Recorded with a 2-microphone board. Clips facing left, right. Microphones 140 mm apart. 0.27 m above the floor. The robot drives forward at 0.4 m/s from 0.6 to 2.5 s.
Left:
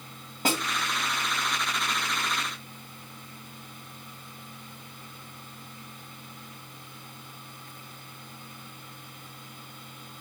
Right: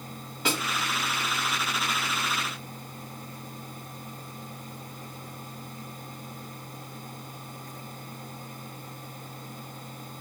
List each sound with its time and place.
0.5 s a snare drum: 45° left (ahead or behind), 1.7 m